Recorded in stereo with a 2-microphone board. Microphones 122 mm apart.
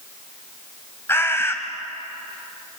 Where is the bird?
20° left (ahead or behind), 2.0 m.